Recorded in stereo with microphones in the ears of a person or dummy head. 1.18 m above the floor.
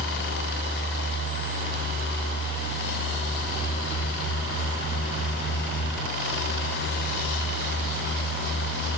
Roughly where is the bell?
No bell in this recording.